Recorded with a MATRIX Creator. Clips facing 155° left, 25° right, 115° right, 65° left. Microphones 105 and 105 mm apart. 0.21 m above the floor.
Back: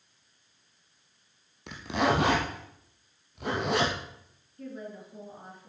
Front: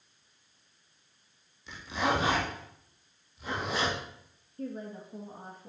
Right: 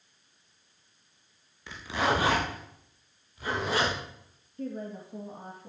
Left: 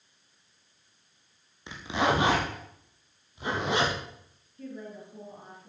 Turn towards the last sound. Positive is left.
turn(degrees=-80)